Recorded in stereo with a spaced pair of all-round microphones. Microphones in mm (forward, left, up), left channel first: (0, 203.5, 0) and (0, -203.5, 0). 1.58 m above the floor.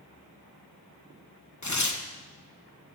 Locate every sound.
1.6 s tearing paper: 50° left (ahead or behind), 1.3 m